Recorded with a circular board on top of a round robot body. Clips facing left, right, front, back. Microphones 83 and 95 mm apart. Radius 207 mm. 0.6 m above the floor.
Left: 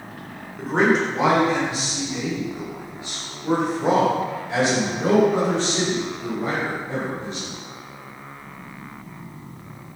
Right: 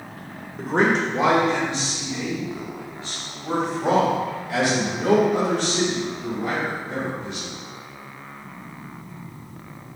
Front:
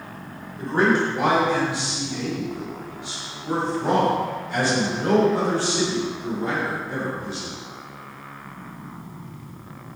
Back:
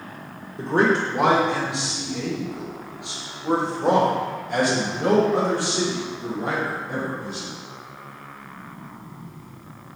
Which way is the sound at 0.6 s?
Straight behind.